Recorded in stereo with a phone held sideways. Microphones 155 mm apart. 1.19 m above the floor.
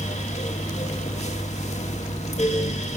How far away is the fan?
About 2 m.